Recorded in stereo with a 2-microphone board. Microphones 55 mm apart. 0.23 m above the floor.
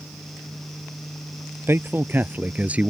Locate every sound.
1.7 s a man speaking: 45° right (ahead or behind); by 2.9 s 20° right (ahead or behind)